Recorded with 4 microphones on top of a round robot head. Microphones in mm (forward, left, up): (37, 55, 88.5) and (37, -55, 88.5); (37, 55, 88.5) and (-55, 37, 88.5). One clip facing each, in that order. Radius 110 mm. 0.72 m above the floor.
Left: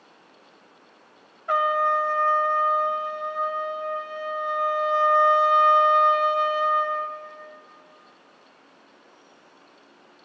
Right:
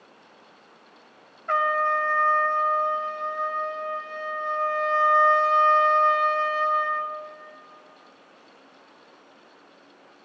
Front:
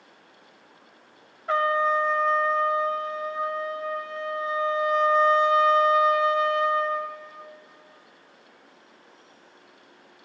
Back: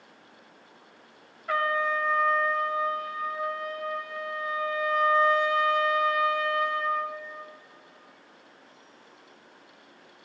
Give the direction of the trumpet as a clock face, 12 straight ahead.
11 o'clock.